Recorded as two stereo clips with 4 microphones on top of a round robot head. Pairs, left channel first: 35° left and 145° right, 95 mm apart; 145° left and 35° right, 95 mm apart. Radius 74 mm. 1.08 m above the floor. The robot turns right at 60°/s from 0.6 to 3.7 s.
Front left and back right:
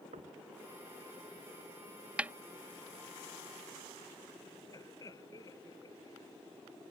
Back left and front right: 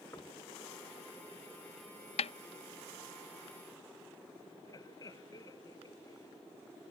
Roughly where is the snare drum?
Behind left.